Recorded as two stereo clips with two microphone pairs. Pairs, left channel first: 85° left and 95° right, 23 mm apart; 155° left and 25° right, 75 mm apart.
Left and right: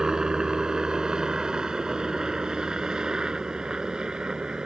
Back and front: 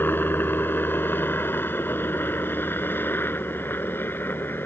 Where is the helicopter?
150° right; by 4.7 s 145° right.